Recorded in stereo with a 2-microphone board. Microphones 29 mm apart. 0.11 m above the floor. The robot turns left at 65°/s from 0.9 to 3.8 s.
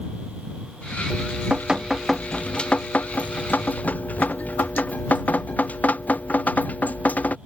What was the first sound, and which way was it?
Dripping, 115° right.